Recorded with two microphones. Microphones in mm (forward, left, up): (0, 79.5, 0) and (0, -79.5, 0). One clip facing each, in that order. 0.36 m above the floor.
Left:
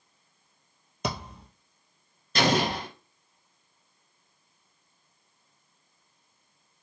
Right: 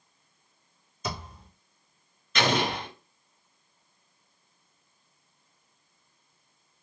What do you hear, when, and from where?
1.0 s a thud: 75° left (ahead or behind), 1.4 m
2.4 s an explosion: 35° left (ahead or behind), 1.9 m